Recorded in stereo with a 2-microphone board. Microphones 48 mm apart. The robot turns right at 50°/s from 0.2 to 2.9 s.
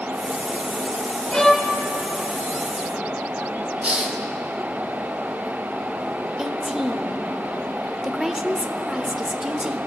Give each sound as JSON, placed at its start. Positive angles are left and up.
{"t": 1.3, "sound": "a violin", "side_deg": 15, "distance_m": 1.6}
{"t": 3.8, "sound": "a hiss", "side_deg": -30, "distance_m": 1.3}
{"t": 6.4, "sound": "a woman speaking", "side_deg": -10, "distance_m": 0.9}